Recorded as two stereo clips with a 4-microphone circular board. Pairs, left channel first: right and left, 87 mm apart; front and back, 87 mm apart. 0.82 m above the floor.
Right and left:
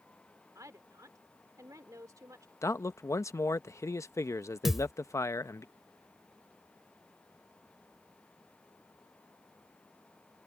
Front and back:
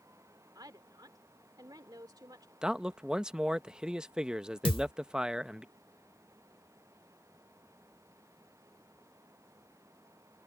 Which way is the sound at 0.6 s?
140° left.